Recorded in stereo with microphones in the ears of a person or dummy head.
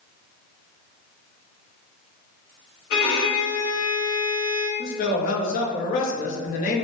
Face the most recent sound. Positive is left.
turn(degrees=35)  # may be behind; listen again after turning